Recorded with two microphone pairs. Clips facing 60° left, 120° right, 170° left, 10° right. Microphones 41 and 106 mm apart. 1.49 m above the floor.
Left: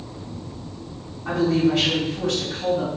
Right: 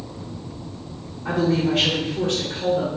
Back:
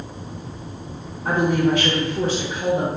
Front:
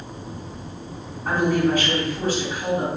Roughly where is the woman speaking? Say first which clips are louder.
Left 1 dB, back 1 dB; behind.